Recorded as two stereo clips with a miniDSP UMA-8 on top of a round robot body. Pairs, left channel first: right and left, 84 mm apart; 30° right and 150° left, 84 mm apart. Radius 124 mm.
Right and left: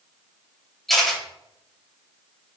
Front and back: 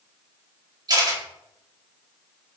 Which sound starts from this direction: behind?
A camera shutter, at 0.9 s.